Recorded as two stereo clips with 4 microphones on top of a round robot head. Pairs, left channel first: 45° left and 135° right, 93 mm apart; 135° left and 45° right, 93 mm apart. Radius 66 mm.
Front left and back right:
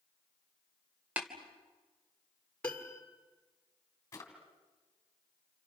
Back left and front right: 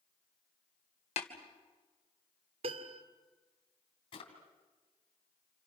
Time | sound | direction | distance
1.2 | tapping | 145° left | 2.5 m
2.6 | a piano | 35° right | 2 m
4.1 | a drawer | 105° left | 3.5 m